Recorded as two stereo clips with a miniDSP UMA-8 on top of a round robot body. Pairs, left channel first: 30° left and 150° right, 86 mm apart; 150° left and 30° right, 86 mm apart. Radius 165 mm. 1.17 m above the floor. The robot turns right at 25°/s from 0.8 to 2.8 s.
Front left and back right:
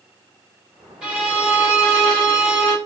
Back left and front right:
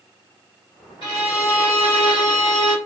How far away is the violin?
About 1.6 m.